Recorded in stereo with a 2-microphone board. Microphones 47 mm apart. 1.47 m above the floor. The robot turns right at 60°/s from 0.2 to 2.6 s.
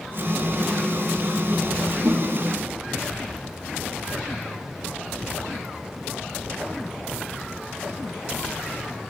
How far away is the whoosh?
About 1.0 m.